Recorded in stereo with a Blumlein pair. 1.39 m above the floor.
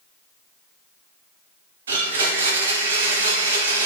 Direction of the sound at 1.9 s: 65° right.